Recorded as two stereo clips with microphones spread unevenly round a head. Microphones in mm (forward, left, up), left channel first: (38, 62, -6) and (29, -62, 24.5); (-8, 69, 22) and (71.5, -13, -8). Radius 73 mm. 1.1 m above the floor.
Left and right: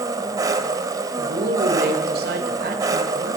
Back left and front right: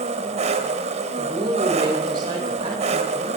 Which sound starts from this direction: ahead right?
An engine running, at 0.0 s.